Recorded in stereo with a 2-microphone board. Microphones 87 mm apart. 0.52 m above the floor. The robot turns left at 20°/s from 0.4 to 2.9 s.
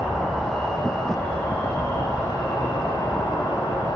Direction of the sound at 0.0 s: 175° left.